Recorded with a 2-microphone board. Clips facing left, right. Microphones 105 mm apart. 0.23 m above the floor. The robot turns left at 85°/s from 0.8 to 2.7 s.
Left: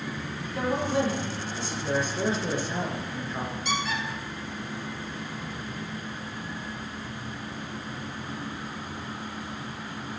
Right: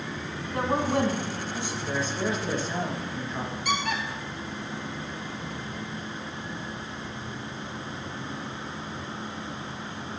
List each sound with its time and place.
0.5 s a woman speaking: 90° right, 2 m; by 1.7 s 170° right, 2 m
1.8 s a man speaking: 80° left, 3 m; by 3.5 s 5° left, 3 m
3.6 s a squeak: 60° right (ahead or behind), 2 m